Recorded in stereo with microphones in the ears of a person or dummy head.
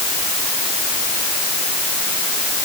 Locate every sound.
Only background noise.